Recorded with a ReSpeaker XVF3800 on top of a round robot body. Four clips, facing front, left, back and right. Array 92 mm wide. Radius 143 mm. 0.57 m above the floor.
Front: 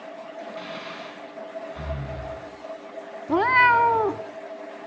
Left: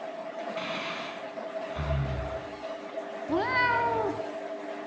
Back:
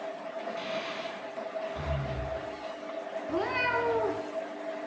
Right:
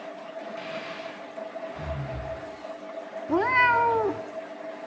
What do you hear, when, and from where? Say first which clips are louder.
0.6 s breathing: left 1 dB, back 1 dB; 90° left, 6 m
3.3 s a cat meowing: right 5 dB, front 12 dB; 15° right, 0.5 m